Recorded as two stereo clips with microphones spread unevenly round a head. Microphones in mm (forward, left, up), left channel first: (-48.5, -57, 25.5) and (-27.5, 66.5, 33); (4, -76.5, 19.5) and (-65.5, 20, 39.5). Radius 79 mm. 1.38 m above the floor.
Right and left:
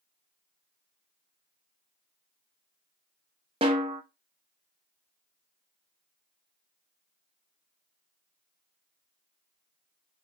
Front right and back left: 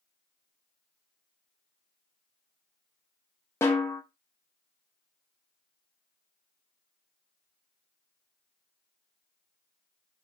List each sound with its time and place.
3.6 s a snare drum: 25° left, 0.5 m